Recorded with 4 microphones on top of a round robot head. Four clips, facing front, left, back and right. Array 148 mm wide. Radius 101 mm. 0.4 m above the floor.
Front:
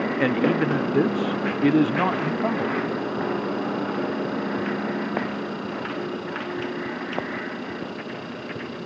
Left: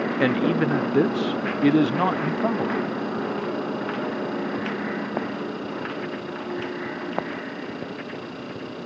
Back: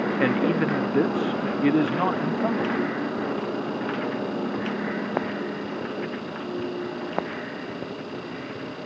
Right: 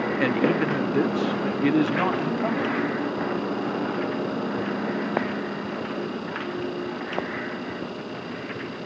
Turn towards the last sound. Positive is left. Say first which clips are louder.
# left 1 dB, front 2 dB
turn(degrees=75)